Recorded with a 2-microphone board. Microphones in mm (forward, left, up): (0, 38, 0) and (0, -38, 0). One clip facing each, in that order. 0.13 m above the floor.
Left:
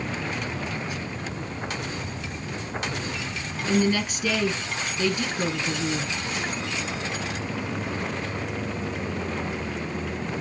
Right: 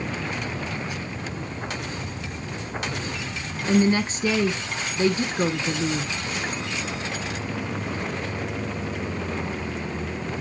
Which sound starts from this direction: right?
A woman speaking, at 3.7 s.